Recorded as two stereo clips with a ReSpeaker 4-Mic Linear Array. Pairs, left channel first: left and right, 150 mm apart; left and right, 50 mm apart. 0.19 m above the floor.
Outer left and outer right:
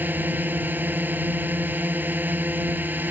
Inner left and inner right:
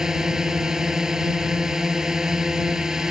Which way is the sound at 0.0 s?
15° right (ahead or behind).